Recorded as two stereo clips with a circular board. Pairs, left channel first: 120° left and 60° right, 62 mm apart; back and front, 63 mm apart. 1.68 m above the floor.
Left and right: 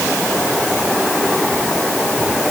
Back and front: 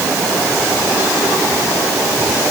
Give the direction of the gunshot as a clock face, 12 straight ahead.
I don't hear a gunshot.